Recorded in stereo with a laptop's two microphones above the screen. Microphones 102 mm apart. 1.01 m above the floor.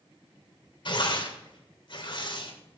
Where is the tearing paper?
55° left (ahead or behind), 2.5 m.